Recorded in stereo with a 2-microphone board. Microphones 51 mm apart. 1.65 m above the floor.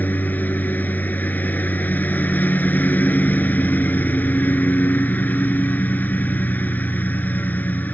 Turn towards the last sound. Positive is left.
turn(degrees=30)  # may be behind; listen again after turning